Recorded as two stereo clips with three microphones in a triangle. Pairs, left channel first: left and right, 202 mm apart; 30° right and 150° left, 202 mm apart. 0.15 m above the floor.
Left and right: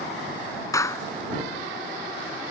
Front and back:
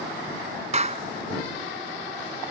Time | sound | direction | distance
0.7 | a clap | 150° left | ?